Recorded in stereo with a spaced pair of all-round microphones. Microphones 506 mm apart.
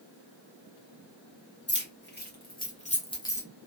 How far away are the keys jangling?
About 1.3 m.